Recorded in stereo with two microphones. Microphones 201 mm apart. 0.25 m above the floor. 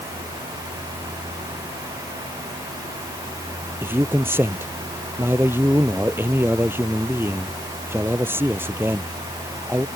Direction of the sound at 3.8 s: 10° right (ahead or behind).